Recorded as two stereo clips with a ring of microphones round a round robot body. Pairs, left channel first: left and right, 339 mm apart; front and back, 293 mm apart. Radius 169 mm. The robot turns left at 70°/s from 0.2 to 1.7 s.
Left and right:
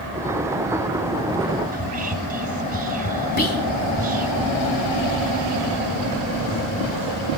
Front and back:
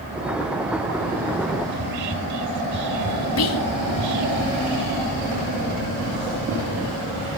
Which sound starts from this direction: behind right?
Whispering, at 1.7 s.